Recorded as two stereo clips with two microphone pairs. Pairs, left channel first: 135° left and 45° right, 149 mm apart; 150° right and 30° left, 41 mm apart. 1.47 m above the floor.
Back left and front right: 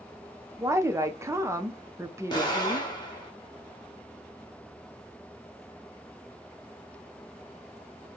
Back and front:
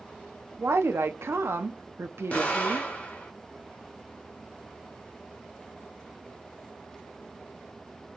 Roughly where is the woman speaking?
Ahead left.